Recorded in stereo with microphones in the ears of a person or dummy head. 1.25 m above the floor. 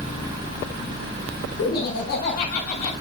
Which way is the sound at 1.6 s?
75° left (ahead or behind).